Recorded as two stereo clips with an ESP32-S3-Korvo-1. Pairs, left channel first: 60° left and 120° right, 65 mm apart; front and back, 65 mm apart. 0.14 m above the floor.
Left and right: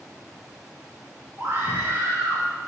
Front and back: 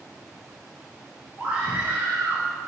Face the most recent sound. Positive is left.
turn(degrees=-130)